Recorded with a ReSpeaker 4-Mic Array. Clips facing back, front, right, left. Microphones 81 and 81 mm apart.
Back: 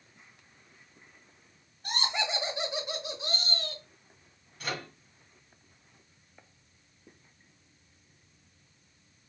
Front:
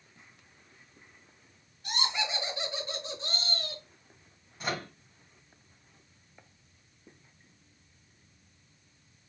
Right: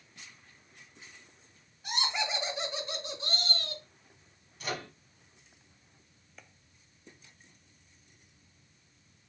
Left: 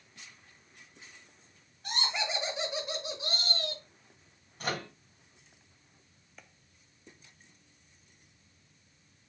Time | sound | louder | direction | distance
1.8 | laughter | back 1 dB, right 1 dB | 175° right | 1.9 m
4.6 | a microwave | front 2 dB, left 2 dB | 55° left | 1.5 m